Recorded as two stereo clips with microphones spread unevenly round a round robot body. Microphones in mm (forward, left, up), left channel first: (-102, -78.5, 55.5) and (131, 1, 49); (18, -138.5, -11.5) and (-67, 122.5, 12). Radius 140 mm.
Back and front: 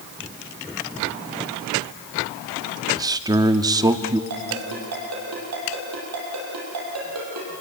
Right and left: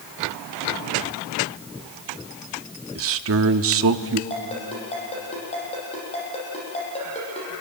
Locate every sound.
3.0 s a man speaking: 85° left, 0.9 m
4.3 s a ringtone: straight ahead, 7.5 m